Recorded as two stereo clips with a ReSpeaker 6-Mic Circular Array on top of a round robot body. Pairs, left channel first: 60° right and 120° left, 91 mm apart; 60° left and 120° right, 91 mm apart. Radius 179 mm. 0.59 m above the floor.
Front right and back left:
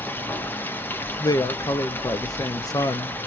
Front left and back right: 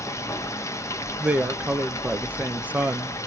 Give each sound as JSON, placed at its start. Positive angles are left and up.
{"t": 0.0, "sound": "running water", "azimuth_deg": 5, "distance_m": 1.0}
{"t": 1.2, "sound": "a woman speaking", "azimuth_deg": -55, "distance_m": 0.9}